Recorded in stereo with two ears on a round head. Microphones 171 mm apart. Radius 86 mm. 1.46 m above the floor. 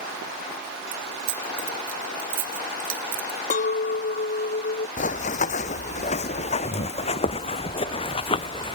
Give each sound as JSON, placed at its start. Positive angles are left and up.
{"t": 0.9, "sound": "keys jangling", "side_deg": -75}
{"t": 3.5, "sound": "a clink", "side_deg": 40}
{"t": 5.0, "sound": "running footsteps", "side_deg": 40}